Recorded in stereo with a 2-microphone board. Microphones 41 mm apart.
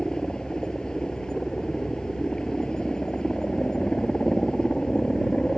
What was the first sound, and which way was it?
A helicopter, 20° left (ahead or behind).